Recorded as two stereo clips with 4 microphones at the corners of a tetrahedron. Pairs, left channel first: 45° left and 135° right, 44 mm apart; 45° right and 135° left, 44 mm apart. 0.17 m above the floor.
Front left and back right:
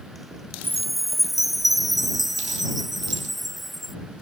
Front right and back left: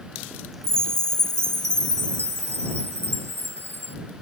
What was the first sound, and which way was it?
A chime, 135° left.